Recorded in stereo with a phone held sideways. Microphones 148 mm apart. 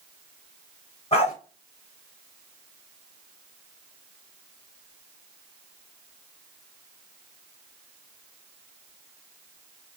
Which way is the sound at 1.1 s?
45° left (ahead or behind).